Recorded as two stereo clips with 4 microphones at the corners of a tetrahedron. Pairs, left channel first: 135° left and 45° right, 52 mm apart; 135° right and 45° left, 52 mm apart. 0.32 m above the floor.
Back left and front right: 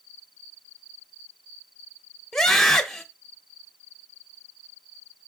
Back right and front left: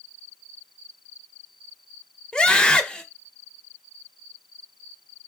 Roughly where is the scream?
Behind.